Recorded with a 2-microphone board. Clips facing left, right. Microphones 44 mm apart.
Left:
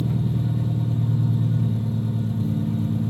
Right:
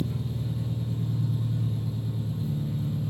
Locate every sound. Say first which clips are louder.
0.0 s an engine running: left 7 dB; 70° left (ahead or behind), 1.5 m